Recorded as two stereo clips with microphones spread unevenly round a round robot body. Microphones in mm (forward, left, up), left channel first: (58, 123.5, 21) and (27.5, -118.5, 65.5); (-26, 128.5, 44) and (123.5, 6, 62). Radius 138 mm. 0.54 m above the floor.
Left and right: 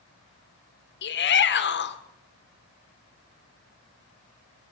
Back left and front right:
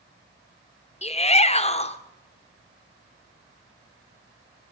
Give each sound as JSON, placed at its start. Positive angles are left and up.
{"t": 1.0, "sound": "a shout", "azimuth_deg": 95, "distance_m": 1.6}